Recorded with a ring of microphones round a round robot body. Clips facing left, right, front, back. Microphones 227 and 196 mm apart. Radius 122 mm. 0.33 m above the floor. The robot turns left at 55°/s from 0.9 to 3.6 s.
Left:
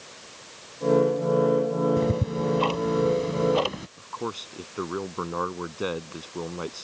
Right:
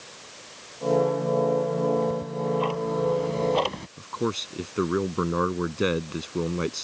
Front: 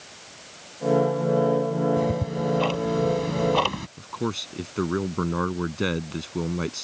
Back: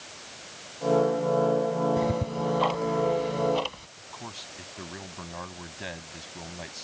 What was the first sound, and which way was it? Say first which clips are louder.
Ticking: left 1 dB, front 2 dB; 95° left.